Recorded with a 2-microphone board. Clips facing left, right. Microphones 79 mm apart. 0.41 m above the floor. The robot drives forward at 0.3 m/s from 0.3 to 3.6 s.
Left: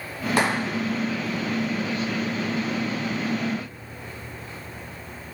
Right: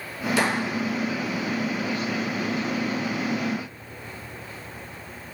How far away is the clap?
About 3 m.